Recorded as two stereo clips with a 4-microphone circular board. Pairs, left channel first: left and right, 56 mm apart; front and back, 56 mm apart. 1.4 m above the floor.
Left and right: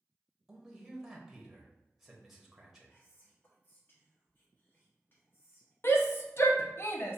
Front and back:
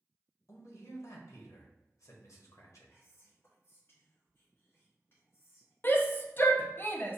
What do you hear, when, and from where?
0.5 s a man speaking: 5° right, 0.9 m
2.9 s whispering: 40° left, 1.0 m
5.8 s a shout: 50° left, 0.6 m